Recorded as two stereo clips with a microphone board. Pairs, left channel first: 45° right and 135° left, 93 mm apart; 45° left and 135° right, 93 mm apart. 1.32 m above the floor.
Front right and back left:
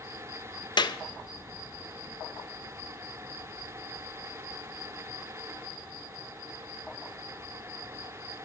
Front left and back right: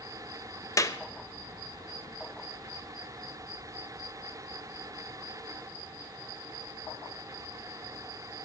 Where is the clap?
10° right, 0.5 m.